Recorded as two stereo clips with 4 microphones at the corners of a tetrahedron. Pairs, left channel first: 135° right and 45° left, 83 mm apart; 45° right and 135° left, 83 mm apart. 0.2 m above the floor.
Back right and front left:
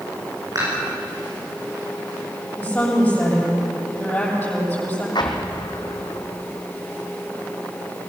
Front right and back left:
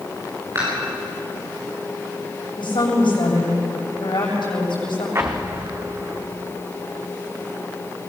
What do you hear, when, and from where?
0.6 s dishes clattering: 85° left, 9.5 m
2.6 s a woman speaking: 65° right, 7.5 m
5.2 s an explosion: 165° right, 2.0 m